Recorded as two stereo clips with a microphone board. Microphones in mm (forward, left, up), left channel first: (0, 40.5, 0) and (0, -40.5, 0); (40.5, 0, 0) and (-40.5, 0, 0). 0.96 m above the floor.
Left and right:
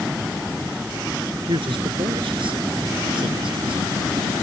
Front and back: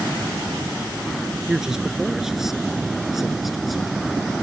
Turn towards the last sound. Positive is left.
turn(degrees=-90)